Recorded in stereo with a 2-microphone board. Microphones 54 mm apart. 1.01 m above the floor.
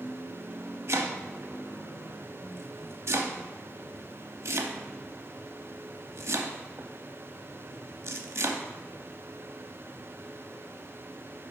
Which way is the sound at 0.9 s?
55° right (ahead or behind).